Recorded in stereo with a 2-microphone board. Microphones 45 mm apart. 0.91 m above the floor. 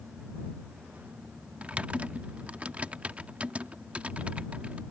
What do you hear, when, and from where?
1.6 s typing on a keyboard: 25° right (ahead or behind)